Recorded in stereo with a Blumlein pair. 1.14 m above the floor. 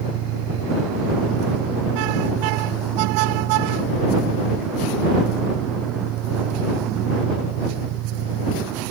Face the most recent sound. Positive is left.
turn(degrees=-35)